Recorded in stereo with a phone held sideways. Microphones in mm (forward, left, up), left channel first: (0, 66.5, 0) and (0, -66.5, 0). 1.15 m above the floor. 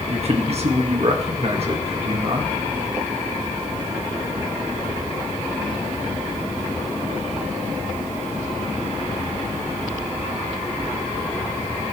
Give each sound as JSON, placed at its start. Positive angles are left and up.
{"t": 0.1, "sound": "a man speaking", "side_deg": -50, "distance_m": 1.8}